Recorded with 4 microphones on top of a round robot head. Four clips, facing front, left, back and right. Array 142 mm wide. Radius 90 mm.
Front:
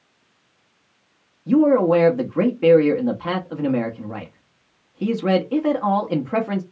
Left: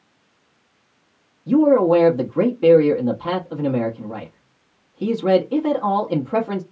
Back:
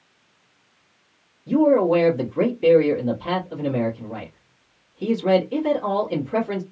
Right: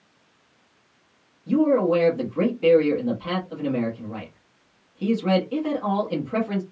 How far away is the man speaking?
About 0.8 m.